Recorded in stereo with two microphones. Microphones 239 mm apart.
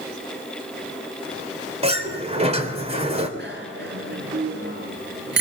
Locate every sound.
1.8 s a sliding door: 25° right (ahead or behind), 3.5 m
3.4 s a bicycle bell: 50° right (ahead or behind), 7.5 m